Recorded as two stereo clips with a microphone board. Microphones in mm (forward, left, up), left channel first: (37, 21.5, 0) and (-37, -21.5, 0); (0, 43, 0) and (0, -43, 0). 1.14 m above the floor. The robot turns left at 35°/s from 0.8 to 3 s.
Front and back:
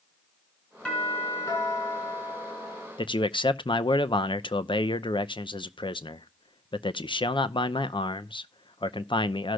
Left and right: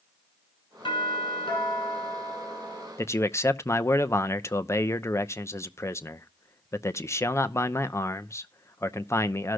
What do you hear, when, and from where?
0.8 s a doorbell: 105° left, 6 m; by 2.9 s 35° left, 6 m
3.0 s a man speaking: 35° left, 0.7 m